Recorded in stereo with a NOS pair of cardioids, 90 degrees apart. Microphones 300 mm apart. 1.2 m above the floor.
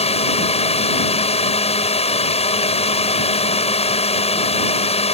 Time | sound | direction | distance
0.0 | a drone | 20° left | ?